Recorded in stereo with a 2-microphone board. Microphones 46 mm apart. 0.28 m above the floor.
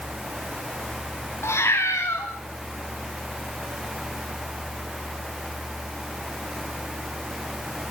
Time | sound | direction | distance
1.4 | a cat meowing | 85° left | 3.5 m